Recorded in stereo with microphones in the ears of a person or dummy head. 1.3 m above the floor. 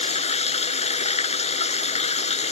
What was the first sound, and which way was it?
Running water, 35° left (ahead or behind).